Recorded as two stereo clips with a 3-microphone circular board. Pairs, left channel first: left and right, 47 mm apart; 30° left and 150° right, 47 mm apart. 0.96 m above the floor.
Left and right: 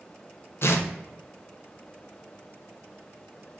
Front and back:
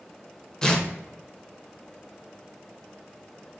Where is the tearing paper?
100° left, 0.6 m.